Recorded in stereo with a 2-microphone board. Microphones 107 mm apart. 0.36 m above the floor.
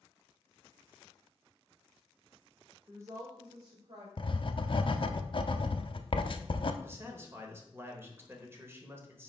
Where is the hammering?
No hammering in this recording.